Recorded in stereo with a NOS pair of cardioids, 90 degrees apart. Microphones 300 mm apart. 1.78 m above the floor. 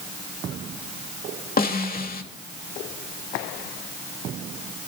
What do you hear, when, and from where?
1.6 s a snare drum: 30° left, 3 m